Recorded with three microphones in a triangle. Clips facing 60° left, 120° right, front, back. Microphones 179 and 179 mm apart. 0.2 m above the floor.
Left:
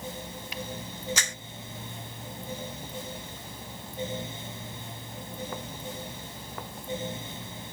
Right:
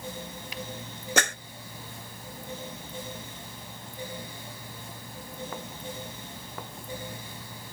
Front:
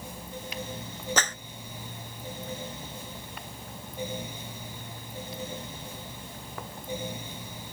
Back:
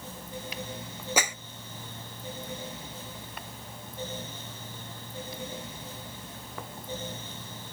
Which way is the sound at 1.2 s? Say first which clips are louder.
Right 10 dB, back 2 dB; 100° right.